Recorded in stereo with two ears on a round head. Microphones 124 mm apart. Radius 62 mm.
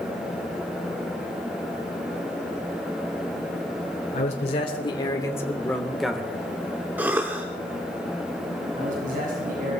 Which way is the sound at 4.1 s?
55° left (ahead or behind).